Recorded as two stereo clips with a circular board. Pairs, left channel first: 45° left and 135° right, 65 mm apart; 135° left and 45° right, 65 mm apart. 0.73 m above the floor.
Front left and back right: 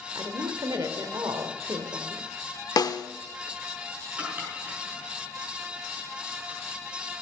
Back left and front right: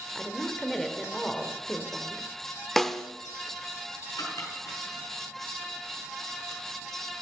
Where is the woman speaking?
140° right, 2 m.